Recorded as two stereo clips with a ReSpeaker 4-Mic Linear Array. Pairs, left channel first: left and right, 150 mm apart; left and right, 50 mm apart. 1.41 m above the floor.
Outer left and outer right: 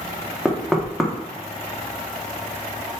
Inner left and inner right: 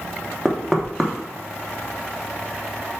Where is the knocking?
Centre (ahead or behind), 1.0 m.